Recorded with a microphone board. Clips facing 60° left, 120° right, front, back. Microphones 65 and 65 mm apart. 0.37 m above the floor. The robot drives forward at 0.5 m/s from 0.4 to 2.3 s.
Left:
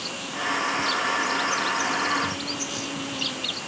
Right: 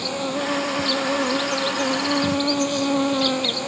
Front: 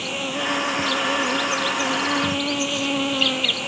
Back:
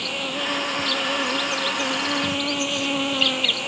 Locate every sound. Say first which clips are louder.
0.0 s an insect: right 6 dB, front 2 dB; 85° right; by 3.7 s 90° right